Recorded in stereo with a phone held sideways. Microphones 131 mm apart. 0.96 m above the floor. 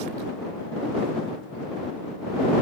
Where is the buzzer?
I don't hear a buzzer.